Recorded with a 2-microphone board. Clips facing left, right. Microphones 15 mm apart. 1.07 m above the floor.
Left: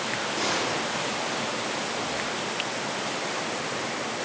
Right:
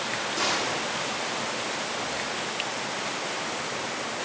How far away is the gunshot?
About 2 m.